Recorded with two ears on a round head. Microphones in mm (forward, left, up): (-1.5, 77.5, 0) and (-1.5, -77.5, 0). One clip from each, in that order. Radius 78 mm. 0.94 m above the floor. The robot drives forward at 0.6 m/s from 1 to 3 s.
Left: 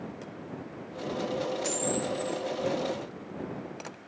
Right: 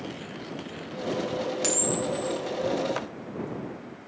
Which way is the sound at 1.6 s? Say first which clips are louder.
Right 3 dB; 75° right (ahead or behind).